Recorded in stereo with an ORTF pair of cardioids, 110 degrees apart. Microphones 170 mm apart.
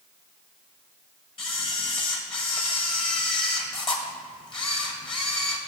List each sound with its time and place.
1.4 s a camera shutter: 30° left, 1.6 m